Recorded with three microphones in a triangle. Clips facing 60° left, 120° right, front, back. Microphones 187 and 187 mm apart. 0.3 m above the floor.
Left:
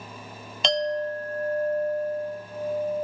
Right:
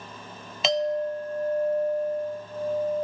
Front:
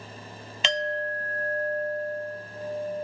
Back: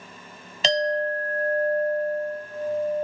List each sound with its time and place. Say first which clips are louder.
0.6 s a clink: right 1 dB, back 6 dB; 160° left, 0.5 m